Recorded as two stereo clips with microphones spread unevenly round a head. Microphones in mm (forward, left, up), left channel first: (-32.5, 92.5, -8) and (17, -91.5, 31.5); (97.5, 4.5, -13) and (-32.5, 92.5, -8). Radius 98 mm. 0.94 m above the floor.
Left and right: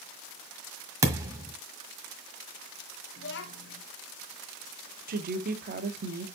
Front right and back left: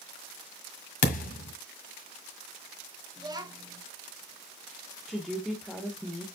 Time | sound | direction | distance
1.0 | a thud | 5° right | 1.6 m
3.2 | a child speaking | 80° left | 1.2 m
5.1 | a woman speaking | 125° right | 1.6 m